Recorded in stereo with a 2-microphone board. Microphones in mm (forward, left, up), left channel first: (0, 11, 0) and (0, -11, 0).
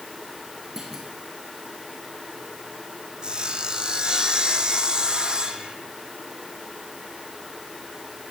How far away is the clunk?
About 6 m.